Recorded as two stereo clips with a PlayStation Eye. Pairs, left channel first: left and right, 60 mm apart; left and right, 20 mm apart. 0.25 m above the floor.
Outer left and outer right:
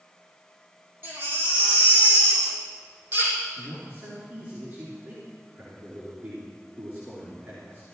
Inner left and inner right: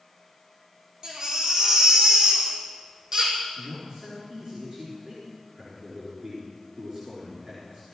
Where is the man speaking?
25° right (ahead or behind), 3.5 m.